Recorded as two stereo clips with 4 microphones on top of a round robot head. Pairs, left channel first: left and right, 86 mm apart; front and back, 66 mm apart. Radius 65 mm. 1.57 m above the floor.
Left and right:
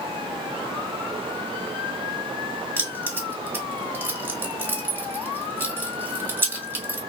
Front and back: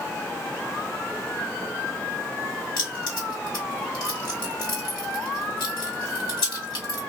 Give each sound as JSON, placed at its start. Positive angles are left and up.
{"t": 2.8, "sound": "keys jangling", "azimuth_deg": -25, "distance_m": 1.4}